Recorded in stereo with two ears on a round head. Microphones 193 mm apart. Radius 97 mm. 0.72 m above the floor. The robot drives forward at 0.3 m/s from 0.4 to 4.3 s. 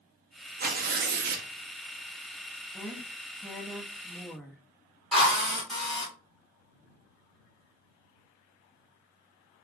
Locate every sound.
0.6 s tearing paper: 40° right (ahead or behind), 0.6 m; by 1.5 s 45° right (ahead or behind), 0.6 m
2.7 s a woman speaking: centre (ahead or behind), 0.5 m
5.1 s a drill: centre (ahead or behind), 2.5 m